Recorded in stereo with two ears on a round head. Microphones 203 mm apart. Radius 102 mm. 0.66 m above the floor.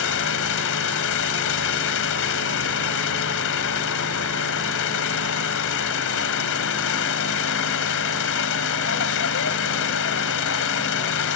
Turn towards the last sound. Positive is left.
turn(degrees=65)  # may be behind; listen again after turning